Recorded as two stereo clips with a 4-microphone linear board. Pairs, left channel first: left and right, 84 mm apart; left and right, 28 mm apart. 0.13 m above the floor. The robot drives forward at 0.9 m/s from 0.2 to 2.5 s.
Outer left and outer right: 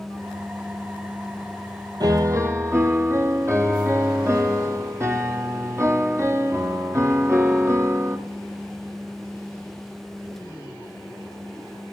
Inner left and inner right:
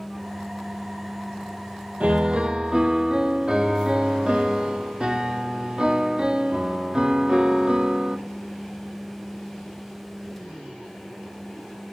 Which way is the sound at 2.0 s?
50° right (ahead or behind).